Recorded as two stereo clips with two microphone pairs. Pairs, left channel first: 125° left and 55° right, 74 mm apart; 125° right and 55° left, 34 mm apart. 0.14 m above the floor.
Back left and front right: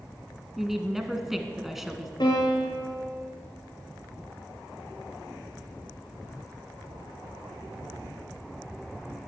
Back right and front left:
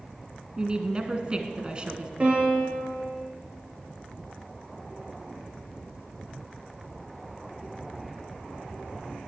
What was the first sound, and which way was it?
A woman speaking, 25° left.